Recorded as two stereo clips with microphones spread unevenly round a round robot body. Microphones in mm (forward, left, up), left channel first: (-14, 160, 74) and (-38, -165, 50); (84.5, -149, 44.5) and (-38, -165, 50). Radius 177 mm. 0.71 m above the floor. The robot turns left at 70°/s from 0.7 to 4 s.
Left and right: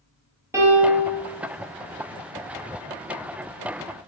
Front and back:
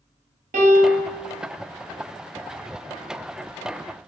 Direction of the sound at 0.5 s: 175° right.